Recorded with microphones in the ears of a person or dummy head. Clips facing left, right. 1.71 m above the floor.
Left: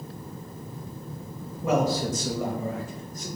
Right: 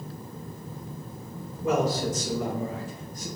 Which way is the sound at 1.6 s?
55° left (ahead or behind).